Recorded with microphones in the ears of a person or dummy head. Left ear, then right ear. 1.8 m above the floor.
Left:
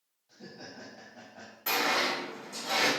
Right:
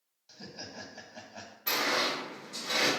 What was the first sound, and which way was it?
Laughter, 65° right (ahead or behind).